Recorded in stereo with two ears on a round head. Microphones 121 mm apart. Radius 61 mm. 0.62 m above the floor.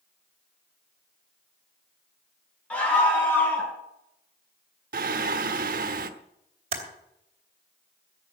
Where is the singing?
70° right (ahead or behind), 1.1 m.